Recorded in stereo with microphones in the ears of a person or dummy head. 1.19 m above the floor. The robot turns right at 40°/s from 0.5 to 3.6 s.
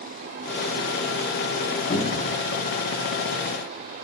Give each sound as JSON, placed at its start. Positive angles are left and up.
{"t": 1.9, "sound": "a cupboard door", "side_deg": 30, "distance_m": 0.8}